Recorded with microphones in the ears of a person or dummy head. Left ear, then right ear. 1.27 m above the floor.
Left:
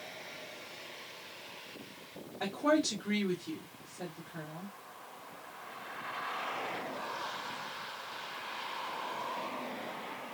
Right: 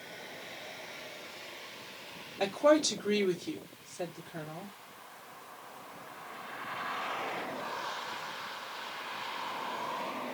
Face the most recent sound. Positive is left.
turn(degrees=-85)